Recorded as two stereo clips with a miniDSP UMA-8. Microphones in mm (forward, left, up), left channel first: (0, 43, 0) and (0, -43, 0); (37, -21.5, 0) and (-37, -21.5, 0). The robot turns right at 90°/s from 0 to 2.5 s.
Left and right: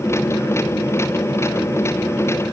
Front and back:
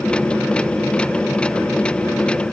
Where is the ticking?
No ticking in this recording.